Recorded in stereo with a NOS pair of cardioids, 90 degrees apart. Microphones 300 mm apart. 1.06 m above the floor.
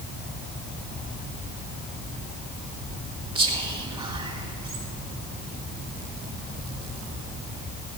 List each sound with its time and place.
3.4 s whispering: 20° right, 1.6 m